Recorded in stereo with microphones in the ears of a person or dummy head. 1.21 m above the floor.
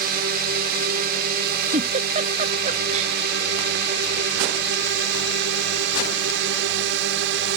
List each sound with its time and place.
0.0 s a drone: 55° right (ahead or behind); by 7.6 s 70° right (ahead or behind)
1.7 s a giggle: 45° right (ahead or behind)